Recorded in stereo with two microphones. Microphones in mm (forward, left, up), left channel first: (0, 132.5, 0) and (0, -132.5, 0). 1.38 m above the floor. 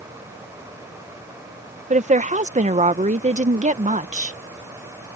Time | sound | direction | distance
1.9 | a woman speaking | 25° right (ahead or behind) | ?